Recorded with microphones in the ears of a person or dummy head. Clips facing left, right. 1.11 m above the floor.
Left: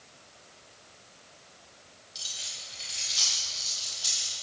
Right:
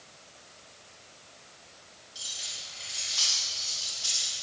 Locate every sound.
2.1 s keys jangling: 35° left (ahead or behind), 5 m; by 4.3 s 30° left (ahead or behind), 7 m